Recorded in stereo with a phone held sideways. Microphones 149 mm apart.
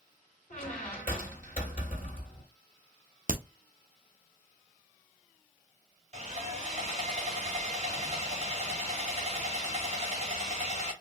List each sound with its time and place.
0.5 s a squeak: 65° left (ahead or behind), 2.0 m
3.3 s a crack: 65° right (ahead or behind), 0.7 m
6.1 s sawing: 45° right (ahead or behind), 2.5 m